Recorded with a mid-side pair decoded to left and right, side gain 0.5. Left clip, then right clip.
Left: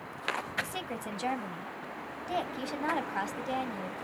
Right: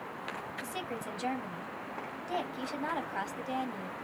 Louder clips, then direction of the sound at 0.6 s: Left 1 dB; 20° left.